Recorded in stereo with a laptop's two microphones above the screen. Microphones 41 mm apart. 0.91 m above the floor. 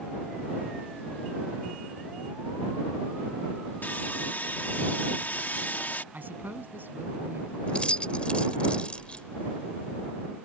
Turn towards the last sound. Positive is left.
turn(degrees=30)  # may be behind; listen again after turning